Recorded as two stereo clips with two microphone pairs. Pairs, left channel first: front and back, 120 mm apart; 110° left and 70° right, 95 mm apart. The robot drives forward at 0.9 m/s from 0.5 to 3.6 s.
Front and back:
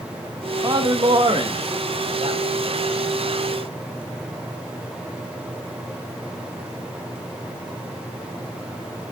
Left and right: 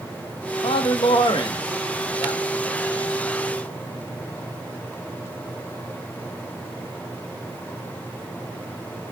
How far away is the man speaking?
About 1.4 m.